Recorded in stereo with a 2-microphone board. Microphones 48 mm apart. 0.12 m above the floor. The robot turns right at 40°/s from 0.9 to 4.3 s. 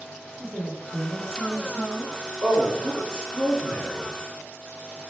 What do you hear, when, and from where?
0.4 s a woman speaking: 5° right (ahead or behind), 1.2 m; by 2.1 s 20° right (ahead or behind), 1.2 m
2.4 s a man speaking: 15° left (ahead or behind), 1.6 m; by 4.1 s 10° right (ahead or behind), 1.6 m